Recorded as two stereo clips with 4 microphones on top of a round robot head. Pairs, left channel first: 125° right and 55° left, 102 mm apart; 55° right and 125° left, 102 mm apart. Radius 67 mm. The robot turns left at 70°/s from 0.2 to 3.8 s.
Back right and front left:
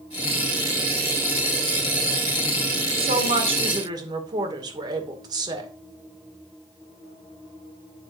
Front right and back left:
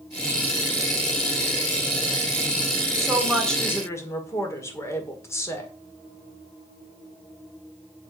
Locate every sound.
3.0 s a woman speaking: 65° left, 1.9 m; by 5.7 s 10° left, 1.9 m